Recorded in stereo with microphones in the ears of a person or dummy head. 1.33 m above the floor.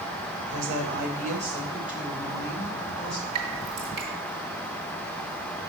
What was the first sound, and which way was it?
A woman speaking, 70° right (ahead or behind).